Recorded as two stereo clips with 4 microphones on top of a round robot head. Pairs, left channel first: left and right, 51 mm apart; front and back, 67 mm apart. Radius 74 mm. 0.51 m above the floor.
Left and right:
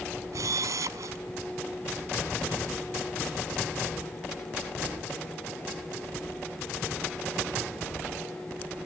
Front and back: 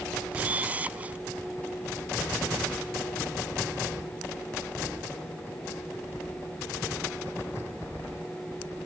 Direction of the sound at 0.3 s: 110° right.